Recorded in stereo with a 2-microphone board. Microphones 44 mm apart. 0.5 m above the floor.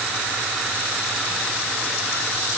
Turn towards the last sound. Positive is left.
No sound to turn to.